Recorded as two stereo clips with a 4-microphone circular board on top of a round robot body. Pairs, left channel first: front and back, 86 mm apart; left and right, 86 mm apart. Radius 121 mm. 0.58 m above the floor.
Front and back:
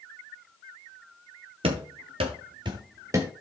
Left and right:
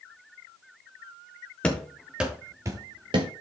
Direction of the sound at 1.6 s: 170° left.